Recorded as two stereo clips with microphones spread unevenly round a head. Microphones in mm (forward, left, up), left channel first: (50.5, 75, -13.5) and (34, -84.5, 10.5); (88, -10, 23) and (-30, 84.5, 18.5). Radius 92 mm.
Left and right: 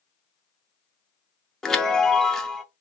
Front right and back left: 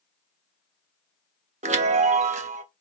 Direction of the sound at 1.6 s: Straight behind.